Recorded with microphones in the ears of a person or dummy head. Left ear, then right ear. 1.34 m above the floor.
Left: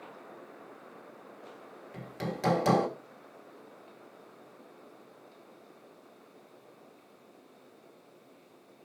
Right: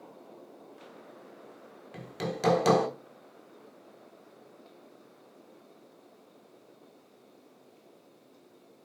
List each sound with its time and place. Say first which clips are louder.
1.9 s hammering: right 3 dB; 10° right (ahead or behind), 1.2 m